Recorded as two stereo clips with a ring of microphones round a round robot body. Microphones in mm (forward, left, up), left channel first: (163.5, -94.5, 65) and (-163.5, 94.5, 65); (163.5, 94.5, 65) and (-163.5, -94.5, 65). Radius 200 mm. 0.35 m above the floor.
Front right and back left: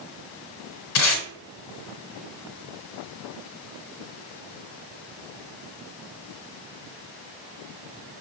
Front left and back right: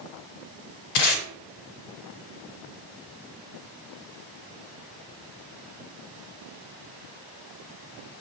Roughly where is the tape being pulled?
Ahead left.